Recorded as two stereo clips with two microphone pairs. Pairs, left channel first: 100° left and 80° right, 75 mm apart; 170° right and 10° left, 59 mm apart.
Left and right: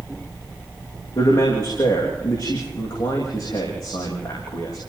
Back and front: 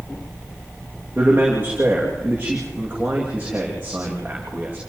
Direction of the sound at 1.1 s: 75° left.